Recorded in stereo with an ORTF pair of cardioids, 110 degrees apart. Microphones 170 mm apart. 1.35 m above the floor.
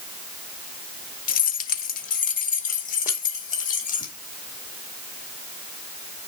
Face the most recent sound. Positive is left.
turn(degrees=50)